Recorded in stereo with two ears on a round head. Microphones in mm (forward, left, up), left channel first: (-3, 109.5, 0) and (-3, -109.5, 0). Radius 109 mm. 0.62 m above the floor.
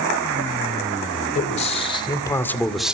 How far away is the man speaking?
About 3 m.